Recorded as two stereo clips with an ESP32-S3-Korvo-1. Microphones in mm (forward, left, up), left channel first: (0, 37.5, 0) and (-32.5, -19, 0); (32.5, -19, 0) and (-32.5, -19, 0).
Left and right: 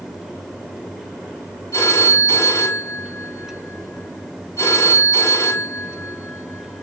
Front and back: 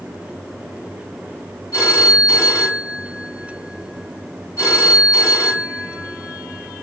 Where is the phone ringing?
30° left, 2.5 m.